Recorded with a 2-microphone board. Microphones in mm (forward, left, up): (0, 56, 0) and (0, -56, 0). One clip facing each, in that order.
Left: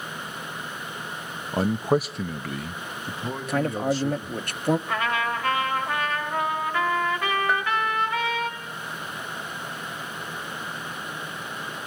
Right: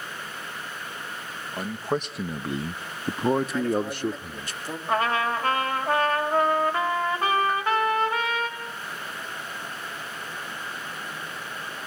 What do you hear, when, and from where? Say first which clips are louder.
1.5 s a man speaking: left 6 dB; 35° left (ahead or behind), 0.6 m; by 4.5 s 65° right (ahead or behind), 1.5 m
3.5 s a man speaking: left 1 dB; 60° left (ahead or behind), 0.9 m
4.9 s a trumpet: right 2 dB; 35° right (ahead or behind), 3 m
7.5 s a bell: even; 85° left, 0.6 m